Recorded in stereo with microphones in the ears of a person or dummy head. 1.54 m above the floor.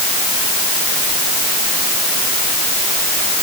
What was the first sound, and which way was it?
Only background noise.